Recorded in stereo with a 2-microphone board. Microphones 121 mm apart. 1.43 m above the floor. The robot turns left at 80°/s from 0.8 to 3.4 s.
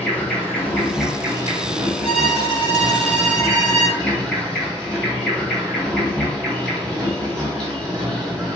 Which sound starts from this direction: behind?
A violin, at 2.0 s.